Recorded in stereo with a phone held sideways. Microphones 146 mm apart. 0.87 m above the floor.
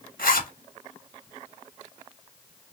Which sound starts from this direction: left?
A zipper, at 0.2 s.